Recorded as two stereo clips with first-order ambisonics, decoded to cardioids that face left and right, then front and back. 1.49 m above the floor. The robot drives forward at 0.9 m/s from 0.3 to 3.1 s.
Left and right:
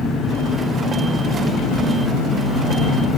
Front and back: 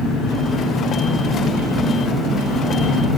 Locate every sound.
0.0 s an engine running: 45° left, 3.5 m; by 3.2 s 100° left, 2.5 m